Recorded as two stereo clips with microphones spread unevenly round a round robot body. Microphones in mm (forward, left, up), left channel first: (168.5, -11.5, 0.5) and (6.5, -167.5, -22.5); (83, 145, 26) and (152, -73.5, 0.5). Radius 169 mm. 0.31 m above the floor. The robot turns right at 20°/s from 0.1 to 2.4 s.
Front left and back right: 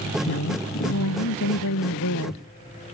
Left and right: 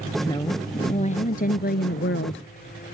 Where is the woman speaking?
35° left; by 2.5 s 75° left.